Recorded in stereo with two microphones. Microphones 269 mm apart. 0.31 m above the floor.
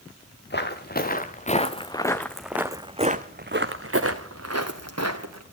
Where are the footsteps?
40° left (ahead or behind), 1.6 m; by 5.4 s 80° right, 1.7 m.